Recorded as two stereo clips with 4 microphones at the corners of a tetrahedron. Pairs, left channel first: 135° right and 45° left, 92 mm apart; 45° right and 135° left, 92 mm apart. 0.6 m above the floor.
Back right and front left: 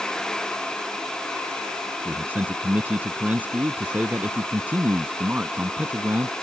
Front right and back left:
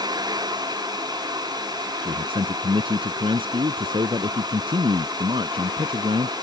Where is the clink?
I don't hear a clink.